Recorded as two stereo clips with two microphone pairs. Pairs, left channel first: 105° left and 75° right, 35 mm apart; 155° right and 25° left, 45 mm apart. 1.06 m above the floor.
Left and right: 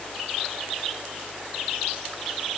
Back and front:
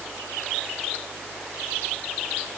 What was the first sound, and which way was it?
Only background noise.